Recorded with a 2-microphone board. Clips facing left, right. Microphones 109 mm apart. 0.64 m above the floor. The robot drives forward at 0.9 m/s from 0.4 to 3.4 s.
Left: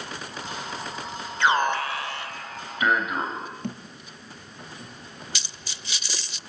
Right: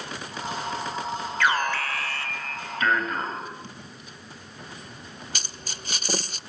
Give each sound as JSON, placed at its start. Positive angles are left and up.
{"t": 1.4, "sound": "an alarm", "side_deg": 20, "distance_m": 2.5}
{"t": 3.6, "sound": "a thud", "side_deg": 55, "distance_m": 4.5}
{"t": 5.3, "sound": "a dropped coin", "side_deg": -40, "distance_m": 0.5}